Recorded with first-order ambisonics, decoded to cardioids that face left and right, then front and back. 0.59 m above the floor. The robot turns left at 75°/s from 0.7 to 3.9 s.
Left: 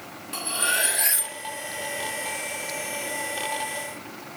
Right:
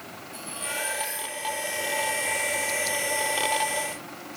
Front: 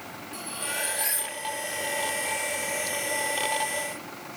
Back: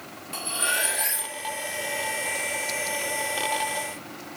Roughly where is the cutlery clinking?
Behind left.